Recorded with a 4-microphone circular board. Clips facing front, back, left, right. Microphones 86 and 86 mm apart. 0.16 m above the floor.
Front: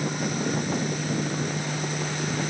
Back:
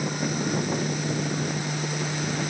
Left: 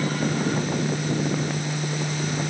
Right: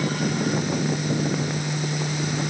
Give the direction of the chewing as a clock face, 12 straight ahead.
I don't hear chewing.